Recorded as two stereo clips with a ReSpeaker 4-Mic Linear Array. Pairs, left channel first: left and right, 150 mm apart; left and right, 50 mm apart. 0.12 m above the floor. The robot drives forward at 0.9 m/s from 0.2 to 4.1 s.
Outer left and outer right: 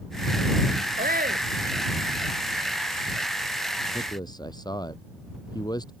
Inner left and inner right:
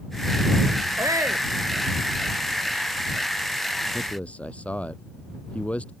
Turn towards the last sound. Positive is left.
turn(degrees=25)  # may be behind; listen again after turning